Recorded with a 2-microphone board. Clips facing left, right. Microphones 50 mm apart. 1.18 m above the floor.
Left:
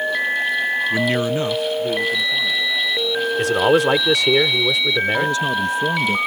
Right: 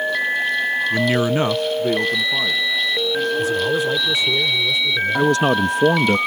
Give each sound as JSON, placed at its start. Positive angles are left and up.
{"t": 0.9, "sound": "a man speaking", "side_deg": 15}
{"t": 3.4, "sound": "a man speaking", "side_deg": 80}
{"t": 5.1, "sound": "a man speaking", "side_deg": -60}